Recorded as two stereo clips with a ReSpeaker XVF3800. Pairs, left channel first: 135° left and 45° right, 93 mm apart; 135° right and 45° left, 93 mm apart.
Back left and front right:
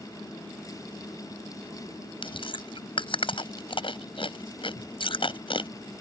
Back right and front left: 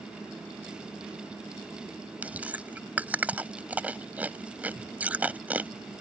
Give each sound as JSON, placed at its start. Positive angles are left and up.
{"t": 2.2, "sound": "chewing", "azimuth_deg": 120}